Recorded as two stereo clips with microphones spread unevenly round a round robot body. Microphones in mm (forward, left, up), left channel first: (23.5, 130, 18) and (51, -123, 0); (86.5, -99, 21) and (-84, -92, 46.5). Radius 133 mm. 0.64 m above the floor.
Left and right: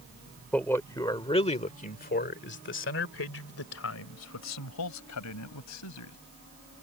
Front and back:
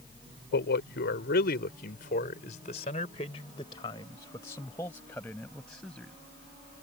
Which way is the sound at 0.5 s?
10° left.